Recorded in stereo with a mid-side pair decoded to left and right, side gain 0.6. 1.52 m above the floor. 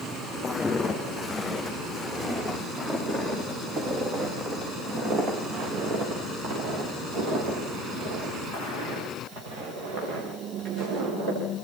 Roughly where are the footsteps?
Ahead.